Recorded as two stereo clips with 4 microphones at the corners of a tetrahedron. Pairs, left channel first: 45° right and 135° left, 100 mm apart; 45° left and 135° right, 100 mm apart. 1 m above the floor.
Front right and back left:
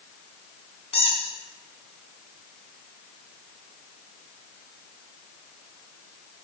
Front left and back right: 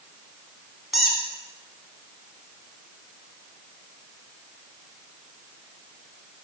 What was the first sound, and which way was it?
A squeak, 45° right.